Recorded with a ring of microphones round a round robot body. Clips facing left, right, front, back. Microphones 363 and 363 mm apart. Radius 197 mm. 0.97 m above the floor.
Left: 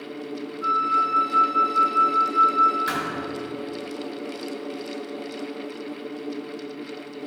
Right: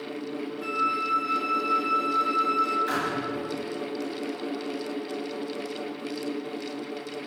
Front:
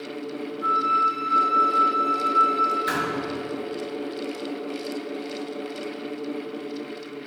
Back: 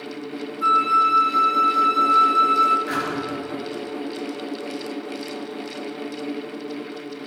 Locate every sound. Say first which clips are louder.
0.6 s a flute: left 1 dB, back 2 dB; 150° right, 2 m
2.9 s a thud: even, back 1 dB; 50° left, 7.5 m